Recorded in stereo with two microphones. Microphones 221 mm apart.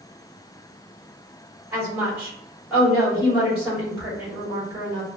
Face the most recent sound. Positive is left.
turn(degrees=-5)  # may be behind; listen again after turning